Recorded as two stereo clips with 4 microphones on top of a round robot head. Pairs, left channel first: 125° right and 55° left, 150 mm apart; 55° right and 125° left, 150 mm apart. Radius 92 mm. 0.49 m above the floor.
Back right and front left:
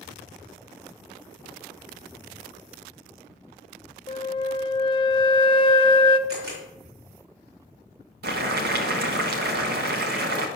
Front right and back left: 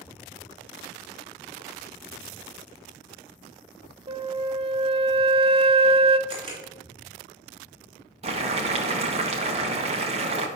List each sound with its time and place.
4.1 s a flute: straight behind, 0.7 m
6.3 s a camera shutter: 70° left, 3.5 m
8.2 s boiling: 75° left, 1.3 m